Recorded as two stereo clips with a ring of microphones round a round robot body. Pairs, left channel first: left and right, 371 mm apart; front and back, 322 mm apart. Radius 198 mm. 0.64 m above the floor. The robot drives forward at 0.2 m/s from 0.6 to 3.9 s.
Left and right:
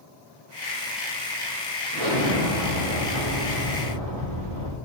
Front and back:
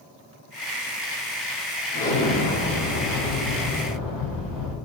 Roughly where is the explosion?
Right.